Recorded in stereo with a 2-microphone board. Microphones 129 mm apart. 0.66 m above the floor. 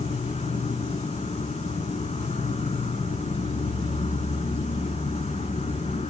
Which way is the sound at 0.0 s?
60° left (ahead or behind).